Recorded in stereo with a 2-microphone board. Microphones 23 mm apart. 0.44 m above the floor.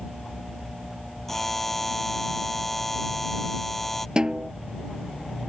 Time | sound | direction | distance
1.3 | a buzzer | 15° left (ahead or behind) | ?
4.2 | a snare drum | 40° right (ahead or behind) | ?